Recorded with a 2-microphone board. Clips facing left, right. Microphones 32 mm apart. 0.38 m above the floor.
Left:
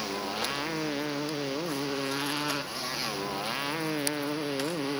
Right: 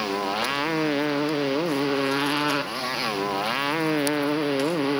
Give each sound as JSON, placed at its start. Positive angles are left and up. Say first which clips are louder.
{"t": 0.0, "sound": "a motorcycle", "louder": "right 7 dB", "side_deg": -30}